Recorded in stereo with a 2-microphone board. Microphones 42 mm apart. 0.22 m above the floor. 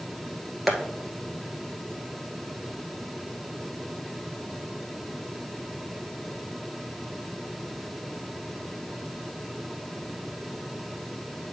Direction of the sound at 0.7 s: 5° right (ahead or behind).